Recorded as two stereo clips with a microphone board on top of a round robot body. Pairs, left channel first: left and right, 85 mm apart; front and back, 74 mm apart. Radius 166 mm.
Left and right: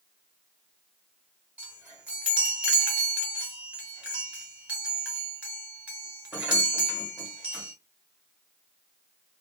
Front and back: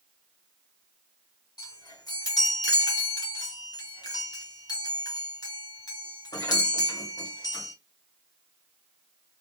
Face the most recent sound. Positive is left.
turn(degrees=-20)